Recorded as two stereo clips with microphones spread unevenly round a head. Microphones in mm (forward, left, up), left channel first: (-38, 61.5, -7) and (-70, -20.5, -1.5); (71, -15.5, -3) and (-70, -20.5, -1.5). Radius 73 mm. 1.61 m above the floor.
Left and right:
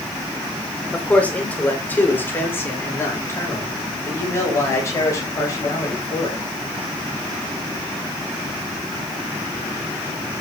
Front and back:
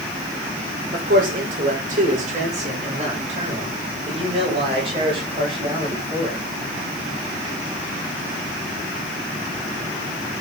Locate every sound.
0.9 s a man speaking: 145° left, 5.5 m; by 6.5 s 120° left, 10.5 m